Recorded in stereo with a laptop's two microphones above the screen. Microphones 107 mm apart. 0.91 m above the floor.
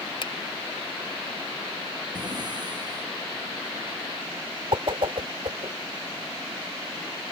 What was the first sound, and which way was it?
A finger snap, 55° left (ahead or behind).